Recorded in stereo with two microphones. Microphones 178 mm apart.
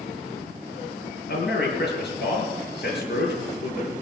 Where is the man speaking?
70° left (ahead or behind), 6 m.